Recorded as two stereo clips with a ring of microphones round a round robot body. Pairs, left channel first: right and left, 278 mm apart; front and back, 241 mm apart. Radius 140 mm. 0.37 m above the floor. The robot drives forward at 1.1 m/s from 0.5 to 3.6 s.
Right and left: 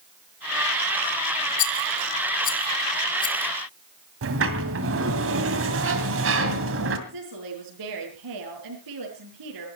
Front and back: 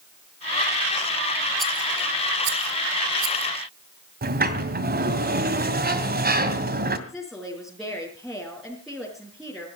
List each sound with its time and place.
1.6 s a rattle: 85° right, 0.6 m; by 3.5 s 165° right, 2 m
4.2 s a sliding door: 130° left, 2 m
7.1 s a woman speaking: 90° left, 5 m